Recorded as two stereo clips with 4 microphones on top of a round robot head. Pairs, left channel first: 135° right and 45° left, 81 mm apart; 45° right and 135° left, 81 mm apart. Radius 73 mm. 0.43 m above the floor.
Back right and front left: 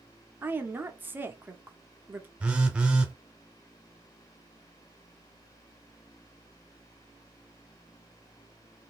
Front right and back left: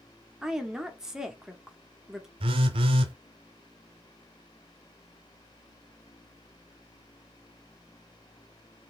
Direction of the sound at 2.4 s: 125° left.